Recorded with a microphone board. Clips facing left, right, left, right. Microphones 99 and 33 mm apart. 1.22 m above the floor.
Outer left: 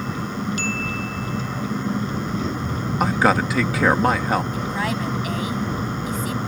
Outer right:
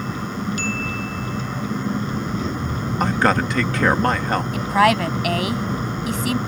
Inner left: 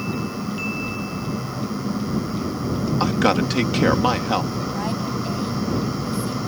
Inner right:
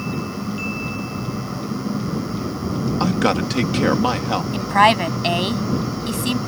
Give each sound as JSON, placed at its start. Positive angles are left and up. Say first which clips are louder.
{"t": 3.0, "sound": "a man speaking", "louder": "even, even", "side_deg": 5}
{"t": 4.5, "sound": "a woman speaking", "louder": "outer right 8 dB, inner right 11 dB", "side_deg": -75}